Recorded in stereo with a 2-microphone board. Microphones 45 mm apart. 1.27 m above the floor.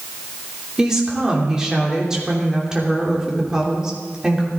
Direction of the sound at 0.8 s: 15° right (ahead or behind).